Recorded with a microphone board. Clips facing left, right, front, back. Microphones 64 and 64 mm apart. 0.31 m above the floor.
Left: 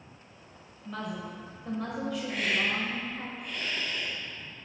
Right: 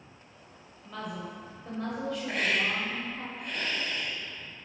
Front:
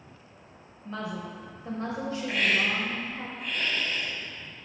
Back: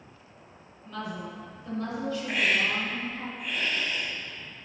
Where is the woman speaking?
5° left, 1.1 m.